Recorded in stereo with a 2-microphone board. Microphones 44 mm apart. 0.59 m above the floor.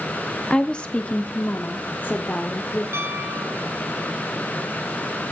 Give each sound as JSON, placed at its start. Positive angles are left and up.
{"t": 0.5, "sound": "a woman speaking", "side_deg": 15, "distance_m": 0.9}
{"t": 2.9, "sound": "a piano", "side_deg": -80, "distance_m": 2.0}